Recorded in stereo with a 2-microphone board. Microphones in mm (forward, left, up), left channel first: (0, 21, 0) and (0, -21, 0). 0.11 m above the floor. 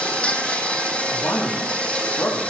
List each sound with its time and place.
0.0 s an insect: 30° left (ahead or behind), 1.9 m
1.1 s a man speaking: 80° left, 7.5 m